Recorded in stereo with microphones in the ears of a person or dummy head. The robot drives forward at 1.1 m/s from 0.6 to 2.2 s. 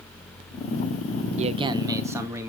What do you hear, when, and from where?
1.4 s a man speaking: 40° right (ahead or behind), 0.6 m; by 2.5 s 15° right (ahead or behind), 1.4 m